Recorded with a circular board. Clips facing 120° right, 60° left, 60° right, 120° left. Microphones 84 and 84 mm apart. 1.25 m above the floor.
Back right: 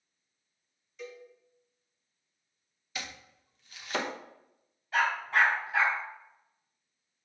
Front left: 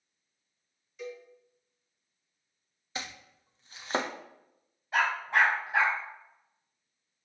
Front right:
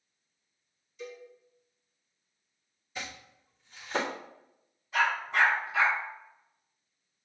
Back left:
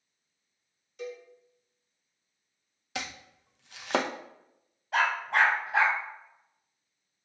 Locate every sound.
1.0 s a cowbell: 140° left, 1.8 m
3.0 s chopping: 120° left, 0.7 m
4.9 s a dog barking: 125° left, 3.5 m